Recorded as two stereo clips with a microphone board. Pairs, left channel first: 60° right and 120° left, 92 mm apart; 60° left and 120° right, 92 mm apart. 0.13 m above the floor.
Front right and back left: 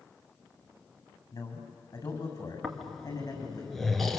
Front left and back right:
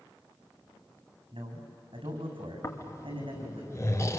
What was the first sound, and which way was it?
A man speaking, 105° right.